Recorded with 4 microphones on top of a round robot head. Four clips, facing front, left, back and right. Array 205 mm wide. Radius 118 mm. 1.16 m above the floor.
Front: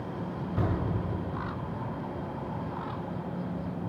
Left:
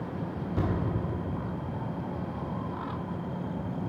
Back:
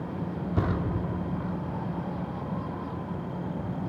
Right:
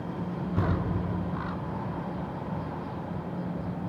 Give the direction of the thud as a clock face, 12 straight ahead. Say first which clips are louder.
Right 1 dB, back 2 dB; 6 o'clock.